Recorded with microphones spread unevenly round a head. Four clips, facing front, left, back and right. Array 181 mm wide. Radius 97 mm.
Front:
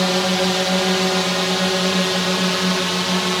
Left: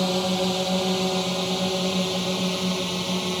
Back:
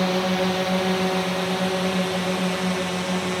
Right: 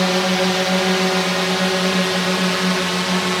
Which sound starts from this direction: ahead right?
A drone, at 0.0 s.